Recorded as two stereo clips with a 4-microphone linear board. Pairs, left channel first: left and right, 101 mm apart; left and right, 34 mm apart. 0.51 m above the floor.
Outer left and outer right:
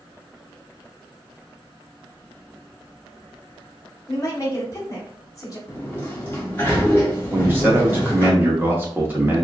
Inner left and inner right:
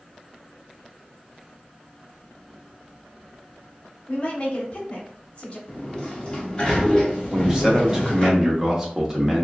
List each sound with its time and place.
4.1 s a woman speaking: 35° left (ahead or behind), 0.8 m
5.7 s a sliding door: 20° left (ahead or behind), 1.1 m
7.3 s a man speaking: 20° right (ahead or behind), 0.8 m